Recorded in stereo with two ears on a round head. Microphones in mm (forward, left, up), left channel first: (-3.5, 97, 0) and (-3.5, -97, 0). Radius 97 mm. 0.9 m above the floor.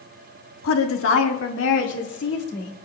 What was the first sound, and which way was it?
A woman speaking, 70° left (ahead or behind).